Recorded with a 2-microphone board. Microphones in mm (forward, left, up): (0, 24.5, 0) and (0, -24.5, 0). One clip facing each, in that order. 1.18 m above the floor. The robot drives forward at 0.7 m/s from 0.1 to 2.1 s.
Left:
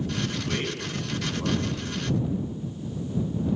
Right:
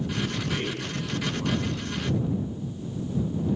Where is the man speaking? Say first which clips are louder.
Even; 15° left (ahead or behind), 8.5 m.